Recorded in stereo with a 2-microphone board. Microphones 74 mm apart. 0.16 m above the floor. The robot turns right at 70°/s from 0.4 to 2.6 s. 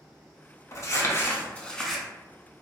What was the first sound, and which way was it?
Crumpling, 95° left.